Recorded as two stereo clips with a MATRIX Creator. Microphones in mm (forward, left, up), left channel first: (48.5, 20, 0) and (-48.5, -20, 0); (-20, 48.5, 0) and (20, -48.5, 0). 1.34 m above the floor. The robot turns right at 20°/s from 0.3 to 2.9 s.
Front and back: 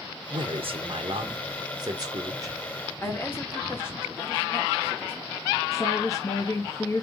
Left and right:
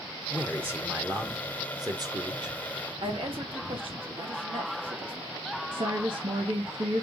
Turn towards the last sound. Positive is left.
turn(degrees=-35)